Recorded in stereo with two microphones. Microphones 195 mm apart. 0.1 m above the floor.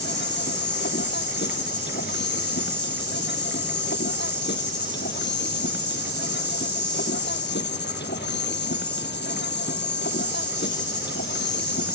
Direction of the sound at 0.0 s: 65° left (ahead or behind).